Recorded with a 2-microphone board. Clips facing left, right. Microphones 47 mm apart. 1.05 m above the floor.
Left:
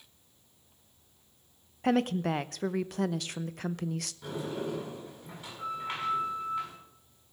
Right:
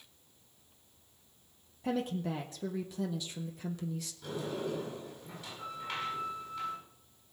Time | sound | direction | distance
1.8 | a woman speaking | 60° left (ahead or behind) | 0.6 m
4.2 | a sliding door | 30° left (ahead or behind) | 7 m